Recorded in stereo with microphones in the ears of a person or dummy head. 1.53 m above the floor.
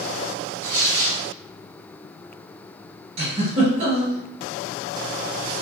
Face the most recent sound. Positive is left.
turn(degrees=-35)  # may be behind; listen again after turning